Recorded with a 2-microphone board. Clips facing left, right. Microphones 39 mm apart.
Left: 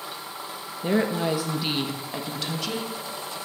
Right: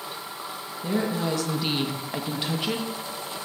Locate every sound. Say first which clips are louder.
0.8 s a woman speaking: left 3 dB; 40° left (ahead or behind), 1.2 m; by 3.4 s 35° right (ahead or behind), 2 m